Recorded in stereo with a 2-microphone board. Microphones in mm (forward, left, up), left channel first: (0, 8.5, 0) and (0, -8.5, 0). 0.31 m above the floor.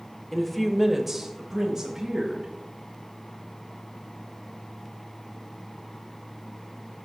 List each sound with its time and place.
0.3 s a woman speaking: 20° left (ahead or behind), 1.0 m; by 2.5 s 30° right (ahead or behind), 2 m